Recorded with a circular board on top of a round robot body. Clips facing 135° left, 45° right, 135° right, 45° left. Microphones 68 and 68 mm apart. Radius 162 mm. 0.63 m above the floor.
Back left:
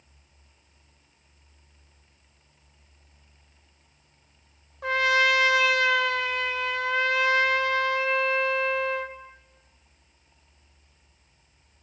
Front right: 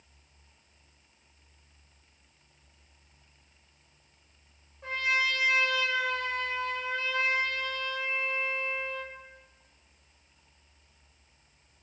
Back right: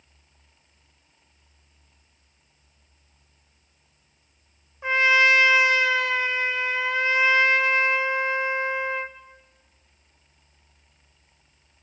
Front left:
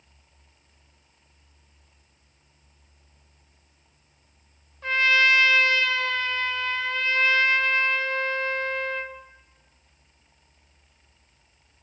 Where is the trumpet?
150° left, 1.5 m.